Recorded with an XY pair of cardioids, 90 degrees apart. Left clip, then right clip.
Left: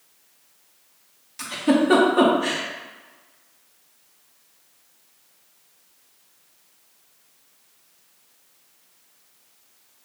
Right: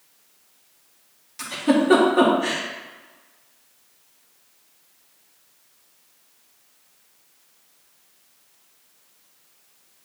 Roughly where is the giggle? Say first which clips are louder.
Even; ahead.